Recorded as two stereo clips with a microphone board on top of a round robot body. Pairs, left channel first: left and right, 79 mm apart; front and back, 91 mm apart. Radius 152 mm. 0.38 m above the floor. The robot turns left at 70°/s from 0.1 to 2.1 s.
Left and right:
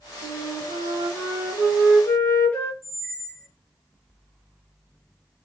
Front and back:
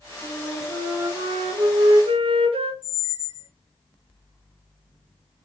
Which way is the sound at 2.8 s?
25° left.